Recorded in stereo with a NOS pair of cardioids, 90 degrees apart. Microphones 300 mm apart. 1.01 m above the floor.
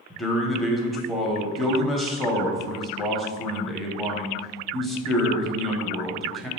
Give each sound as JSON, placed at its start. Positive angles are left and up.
{"t": 0.1, "sound": "a man speaking", "azimuth_deg": 0, "distance_m": 0.6}